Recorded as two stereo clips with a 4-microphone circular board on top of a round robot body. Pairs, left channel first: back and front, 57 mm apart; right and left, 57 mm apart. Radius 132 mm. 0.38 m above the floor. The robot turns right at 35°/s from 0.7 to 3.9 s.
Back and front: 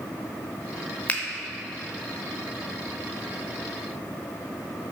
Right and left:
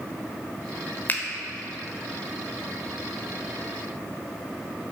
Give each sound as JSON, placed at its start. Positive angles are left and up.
{"t": 1.1, "sound": "a finger snap", "azimuth_deg": -130, "distance_m": 0.7}